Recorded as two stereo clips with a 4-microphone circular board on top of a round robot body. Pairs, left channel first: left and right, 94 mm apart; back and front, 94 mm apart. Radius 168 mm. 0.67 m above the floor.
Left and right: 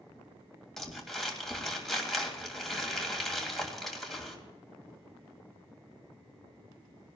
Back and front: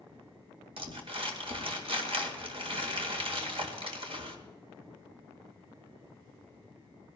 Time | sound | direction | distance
0.8 | crumpling | 5° left | 2.5 m